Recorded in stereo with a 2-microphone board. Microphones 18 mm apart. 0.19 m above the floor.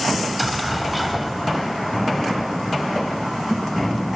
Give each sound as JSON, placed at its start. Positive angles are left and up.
{"t": 0.2, "sound": "an explosion", "side_deg": 5, "distance_m": 2.0}